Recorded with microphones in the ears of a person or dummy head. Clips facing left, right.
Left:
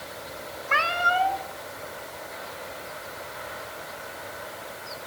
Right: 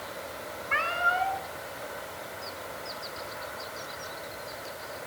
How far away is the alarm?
I don't hear an alarm.